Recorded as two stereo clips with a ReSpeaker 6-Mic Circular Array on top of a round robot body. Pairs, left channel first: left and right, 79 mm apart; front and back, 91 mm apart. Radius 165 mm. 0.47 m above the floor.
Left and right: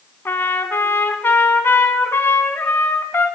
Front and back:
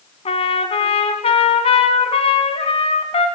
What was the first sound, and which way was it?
A trumpet, 25° left.